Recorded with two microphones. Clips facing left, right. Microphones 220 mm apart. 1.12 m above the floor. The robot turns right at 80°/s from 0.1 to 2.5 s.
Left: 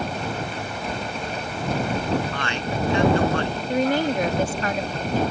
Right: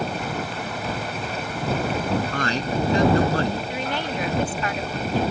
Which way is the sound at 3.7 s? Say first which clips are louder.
Left 7 dB; 45° left (ahead or behind).